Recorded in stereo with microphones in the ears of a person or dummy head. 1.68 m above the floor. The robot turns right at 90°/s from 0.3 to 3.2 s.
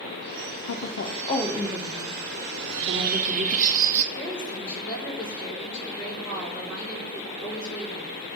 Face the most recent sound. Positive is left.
turn(degrees=-5)  # may be behind; listen again after turning